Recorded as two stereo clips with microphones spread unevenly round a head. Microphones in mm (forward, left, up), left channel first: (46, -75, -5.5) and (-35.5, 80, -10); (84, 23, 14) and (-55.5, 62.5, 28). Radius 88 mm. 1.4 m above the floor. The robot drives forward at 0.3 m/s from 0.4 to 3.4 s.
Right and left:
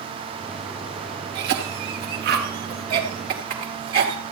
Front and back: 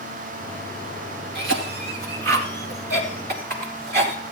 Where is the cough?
155° left, 2 m; by 4.2 s 160° left, 2.5 m.